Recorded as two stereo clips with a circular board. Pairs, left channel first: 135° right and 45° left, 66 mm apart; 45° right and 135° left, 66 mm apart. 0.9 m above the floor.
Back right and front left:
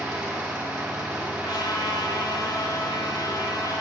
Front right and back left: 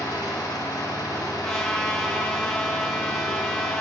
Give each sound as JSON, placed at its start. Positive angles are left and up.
{"t": 0.0, "sound": "an engine running", "azimuth_deg": -25, "distance_m": 2.0}
{"t": 1.4, "sound": "a trumpet", "azimuth_deg": -125, "distance_m": 0.5}